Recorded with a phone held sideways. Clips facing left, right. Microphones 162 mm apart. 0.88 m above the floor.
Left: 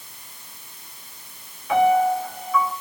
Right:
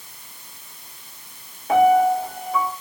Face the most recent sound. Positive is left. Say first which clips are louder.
# right 2 dB
turn(degrees=-45)  # may be behind; listen again after turning